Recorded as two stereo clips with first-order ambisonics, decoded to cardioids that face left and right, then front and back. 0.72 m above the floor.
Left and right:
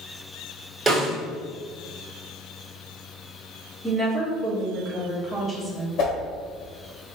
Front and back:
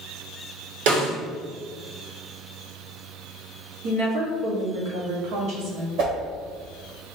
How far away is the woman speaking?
About 1.3 m.